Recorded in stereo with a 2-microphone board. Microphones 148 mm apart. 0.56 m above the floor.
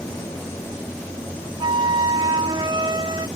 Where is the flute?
30° right (ahead or behind).